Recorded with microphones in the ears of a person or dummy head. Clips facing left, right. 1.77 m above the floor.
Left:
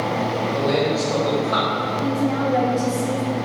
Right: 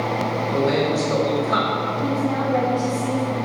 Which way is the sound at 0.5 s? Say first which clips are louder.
Right 1 dB; 25° right (ahead or behind).